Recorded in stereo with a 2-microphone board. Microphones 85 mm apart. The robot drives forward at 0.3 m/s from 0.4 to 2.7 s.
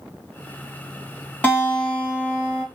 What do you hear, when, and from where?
1.4 s a guitar: 15° left (ahead or behind), 1.3 m; by 2.6 s 20° left (ahead or behind), 1.2 m